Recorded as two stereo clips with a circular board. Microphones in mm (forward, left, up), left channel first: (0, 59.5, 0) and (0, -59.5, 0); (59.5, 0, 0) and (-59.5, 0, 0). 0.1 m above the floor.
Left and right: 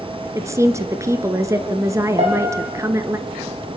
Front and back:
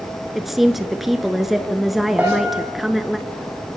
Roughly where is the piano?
Right.